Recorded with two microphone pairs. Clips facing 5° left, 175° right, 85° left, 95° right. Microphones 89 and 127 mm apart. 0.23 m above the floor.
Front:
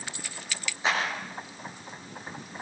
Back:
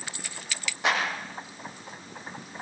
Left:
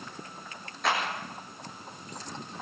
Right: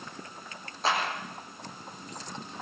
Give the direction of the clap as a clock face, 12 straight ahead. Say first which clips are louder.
Back 1 dB, even; 5 o'clock.